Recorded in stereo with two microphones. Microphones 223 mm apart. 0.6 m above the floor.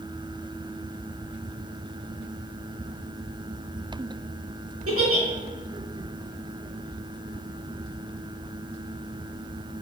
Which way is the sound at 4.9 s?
80° right.